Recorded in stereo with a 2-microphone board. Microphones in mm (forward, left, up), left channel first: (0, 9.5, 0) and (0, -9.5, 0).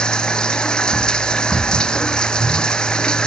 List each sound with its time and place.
0.0 s running water: 50° left (ahead or behind)